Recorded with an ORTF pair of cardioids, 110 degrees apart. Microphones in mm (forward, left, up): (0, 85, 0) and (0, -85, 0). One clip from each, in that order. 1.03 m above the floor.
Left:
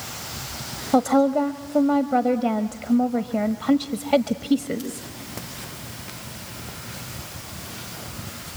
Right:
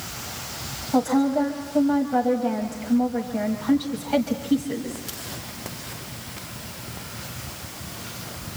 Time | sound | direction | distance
0.9 | a woman speaking | 55° left | 1.3 m